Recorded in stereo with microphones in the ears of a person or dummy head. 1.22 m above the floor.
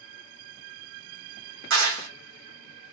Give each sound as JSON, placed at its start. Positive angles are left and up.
{"t": 1.7, "sound": "a clap", "side_deg": -80, "distance_m": 1.2}